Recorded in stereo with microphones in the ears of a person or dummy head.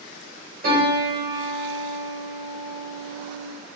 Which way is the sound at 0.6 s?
45° right (ahead or behind).